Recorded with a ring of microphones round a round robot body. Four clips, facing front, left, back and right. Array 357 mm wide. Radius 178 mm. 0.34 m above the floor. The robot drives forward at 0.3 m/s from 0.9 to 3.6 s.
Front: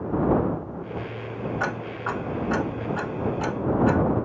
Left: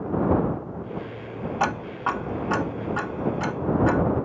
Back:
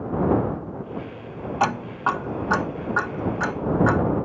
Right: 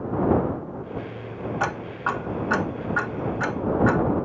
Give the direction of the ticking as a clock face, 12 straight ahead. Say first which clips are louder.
Left 2 dB, back 11 dB; 7 o'clock.